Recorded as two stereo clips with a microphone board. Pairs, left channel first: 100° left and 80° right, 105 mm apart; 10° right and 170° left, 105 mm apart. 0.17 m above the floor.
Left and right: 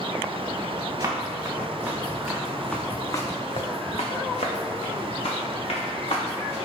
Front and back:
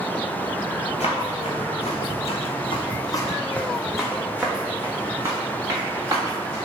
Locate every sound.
1.0 s running footsteps: 25° right, 1.5 m; by 6.6 s 115° left, 2 m